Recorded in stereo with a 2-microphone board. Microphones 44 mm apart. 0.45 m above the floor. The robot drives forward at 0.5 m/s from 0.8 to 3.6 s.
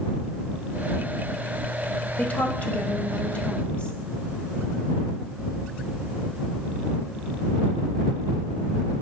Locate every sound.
2.2 s a woman speaking: 35° left (ahead or behind), 1.5 m; by 4.0 s 25° left (ahead or behind), 2.0 m